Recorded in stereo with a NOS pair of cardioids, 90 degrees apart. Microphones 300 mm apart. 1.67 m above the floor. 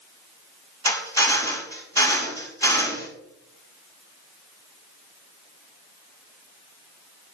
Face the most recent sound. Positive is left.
turn(degrees=10)